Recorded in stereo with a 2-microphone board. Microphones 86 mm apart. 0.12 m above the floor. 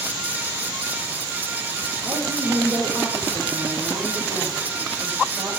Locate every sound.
2.0 s a woman speaking: 30° right (ahead or behind), 4.5 m; by 5.5 s 35° right (ahead or behind), 7 m